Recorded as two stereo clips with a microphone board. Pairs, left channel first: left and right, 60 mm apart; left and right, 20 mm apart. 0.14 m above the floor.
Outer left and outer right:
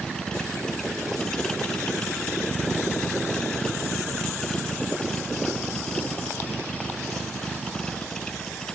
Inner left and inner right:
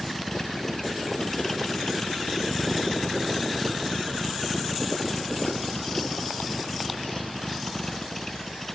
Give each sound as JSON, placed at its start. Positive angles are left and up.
{"t": 0.0, "sound": "a vehicle", "side_deg": 10}